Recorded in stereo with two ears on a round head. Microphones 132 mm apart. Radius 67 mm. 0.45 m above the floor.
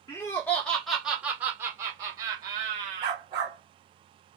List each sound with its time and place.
0.1 s laughter: 20° left (ahead or behind), 1.1 m; by 3.2 s 35° right (ahead or behind), 2 m
3.0 s a dog barking: 30° right (ahead or behind), 1.4 m